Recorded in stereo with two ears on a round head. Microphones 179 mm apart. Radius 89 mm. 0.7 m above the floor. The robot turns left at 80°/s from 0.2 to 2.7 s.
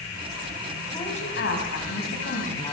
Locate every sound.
0.9 s a woman speaking: 160° left, 5 m; by 2.7 s 20° left, 5 m